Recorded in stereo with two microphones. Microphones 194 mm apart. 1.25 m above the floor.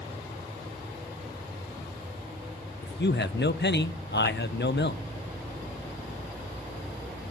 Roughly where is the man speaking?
Left.